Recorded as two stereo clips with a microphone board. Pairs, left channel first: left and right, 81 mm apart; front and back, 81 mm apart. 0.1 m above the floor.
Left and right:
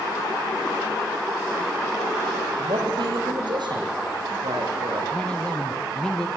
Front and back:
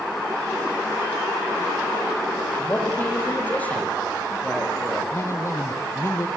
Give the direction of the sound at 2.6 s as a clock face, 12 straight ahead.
2 o'clock.